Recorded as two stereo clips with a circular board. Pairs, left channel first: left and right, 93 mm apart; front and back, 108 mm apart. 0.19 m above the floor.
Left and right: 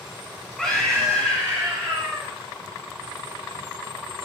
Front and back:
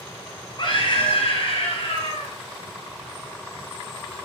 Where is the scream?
10° left, 1.9 m; by 2.3 s 20° right, 3.5 m.